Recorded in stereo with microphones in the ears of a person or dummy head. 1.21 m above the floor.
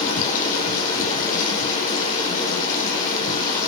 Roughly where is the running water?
Left.